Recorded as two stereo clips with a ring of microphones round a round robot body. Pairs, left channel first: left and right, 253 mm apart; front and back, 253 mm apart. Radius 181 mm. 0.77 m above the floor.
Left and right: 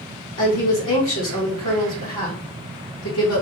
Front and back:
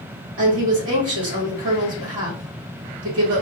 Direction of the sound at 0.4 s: 135° left.